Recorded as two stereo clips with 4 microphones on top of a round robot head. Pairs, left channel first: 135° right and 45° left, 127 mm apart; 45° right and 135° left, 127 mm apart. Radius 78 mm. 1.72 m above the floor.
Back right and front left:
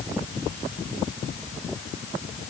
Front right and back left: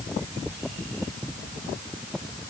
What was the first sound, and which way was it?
Only background noise.